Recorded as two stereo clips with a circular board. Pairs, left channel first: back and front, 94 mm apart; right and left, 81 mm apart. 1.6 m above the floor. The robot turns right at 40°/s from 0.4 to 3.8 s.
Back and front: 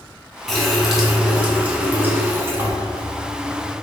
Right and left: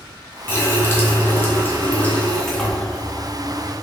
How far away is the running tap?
About 0.7 m.